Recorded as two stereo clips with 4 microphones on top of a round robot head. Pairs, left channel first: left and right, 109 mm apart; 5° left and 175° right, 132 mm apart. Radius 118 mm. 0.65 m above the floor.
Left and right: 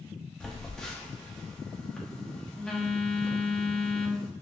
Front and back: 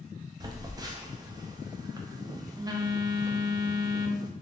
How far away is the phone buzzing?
About 0.6 m.